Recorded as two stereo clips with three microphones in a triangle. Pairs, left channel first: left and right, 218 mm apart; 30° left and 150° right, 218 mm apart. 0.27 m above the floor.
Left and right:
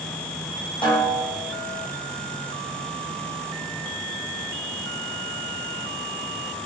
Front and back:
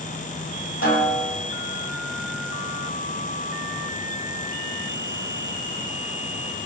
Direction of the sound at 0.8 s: 25° left.